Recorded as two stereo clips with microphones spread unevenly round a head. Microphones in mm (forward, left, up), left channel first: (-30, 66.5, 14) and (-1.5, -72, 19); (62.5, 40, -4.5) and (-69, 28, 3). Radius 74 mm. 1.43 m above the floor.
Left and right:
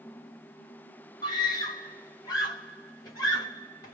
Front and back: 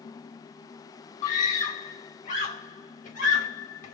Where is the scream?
35° left, 1.8 m.